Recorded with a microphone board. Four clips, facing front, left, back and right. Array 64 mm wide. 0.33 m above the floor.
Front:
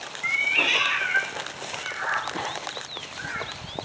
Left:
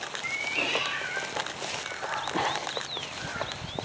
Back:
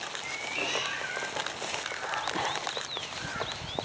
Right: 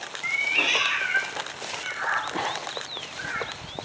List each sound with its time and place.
0.2 s a cat meowing: 15° right, 1.2 m; by 3.5 s 55° right, 2.5 m